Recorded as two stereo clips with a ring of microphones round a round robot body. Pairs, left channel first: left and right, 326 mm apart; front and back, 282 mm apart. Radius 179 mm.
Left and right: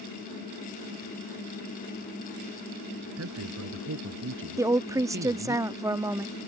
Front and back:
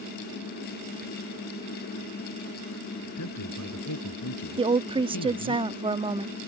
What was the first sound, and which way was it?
A man speaking, 40° right.